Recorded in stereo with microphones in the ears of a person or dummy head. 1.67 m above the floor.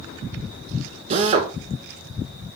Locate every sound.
1.1 s a drill: 30° right (ahead or behind), 1.5 m